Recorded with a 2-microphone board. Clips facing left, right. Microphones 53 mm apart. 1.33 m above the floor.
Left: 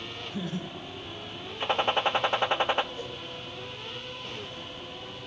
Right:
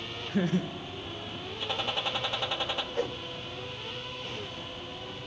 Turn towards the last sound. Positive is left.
turn(degrees=-80)